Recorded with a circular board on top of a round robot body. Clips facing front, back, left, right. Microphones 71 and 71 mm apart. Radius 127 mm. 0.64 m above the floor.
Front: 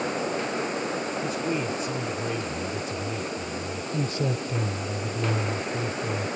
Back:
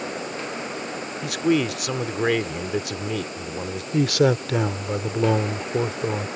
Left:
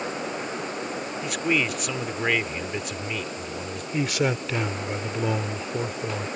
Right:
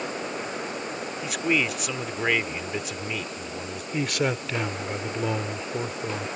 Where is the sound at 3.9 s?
Straight behind.